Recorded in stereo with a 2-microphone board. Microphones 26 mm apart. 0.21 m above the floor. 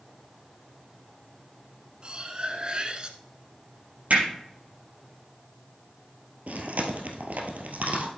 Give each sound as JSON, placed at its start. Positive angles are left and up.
{"t": 2.0, "sound": "cutlery clinking", "side_deg": -35, "distance_m": 1.2}
{"t": 4.1, "sound": "hammering", "side_deg": -55, "distance_m": 5.0}
{"t": 6.5, "sound": "chewing", "side_deg": -70, "distance_m": 1.6}